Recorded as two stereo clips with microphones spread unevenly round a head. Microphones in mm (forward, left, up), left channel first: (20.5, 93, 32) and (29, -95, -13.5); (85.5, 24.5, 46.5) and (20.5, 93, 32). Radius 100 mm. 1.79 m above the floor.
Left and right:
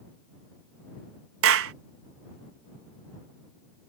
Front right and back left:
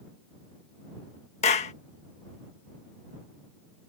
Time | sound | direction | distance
1.4 | a clap | 75° right | ?